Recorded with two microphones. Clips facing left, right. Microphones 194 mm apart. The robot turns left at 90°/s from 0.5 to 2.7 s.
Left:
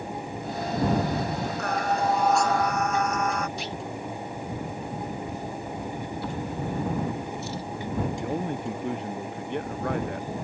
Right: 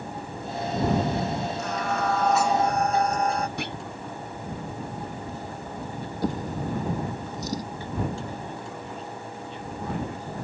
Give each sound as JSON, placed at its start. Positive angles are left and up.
{"t": 1.6, "sound": "singing", "azimuth_deg": 65}
{"t": 3.6, "sound": "a clunk", "side_deg": -60}
{"t": 6.2, "sound": "a drawer", "side_deg": -40}
{"t": 8.2, "sound": "a man speaking", "side_deg": 65}